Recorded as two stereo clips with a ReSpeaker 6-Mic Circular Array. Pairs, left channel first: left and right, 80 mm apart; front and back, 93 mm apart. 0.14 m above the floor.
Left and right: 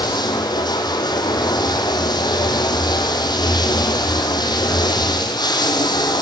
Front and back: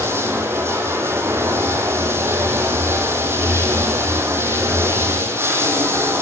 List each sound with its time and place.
0.0 s running water: 120° left, 1.1 m